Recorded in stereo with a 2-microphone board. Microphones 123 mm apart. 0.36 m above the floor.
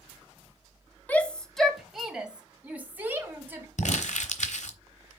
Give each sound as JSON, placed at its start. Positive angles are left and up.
{"t": 1.1, "sound": "a shout", "side_deg": 10, "distance_m": 0.9}
{"t": 3.8, "sound": "crumpling", "side_deg": 70, "distance_m": 1.1}